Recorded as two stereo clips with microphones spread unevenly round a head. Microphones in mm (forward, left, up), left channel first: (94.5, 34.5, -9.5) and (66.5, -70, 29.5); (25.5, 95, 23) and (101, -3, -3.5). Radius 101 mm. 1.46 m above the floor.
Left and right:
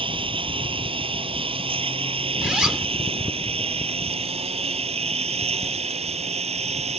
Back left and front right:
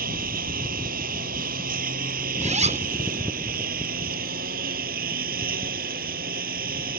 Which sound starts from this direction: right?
A lawn mower, at 0.0 s.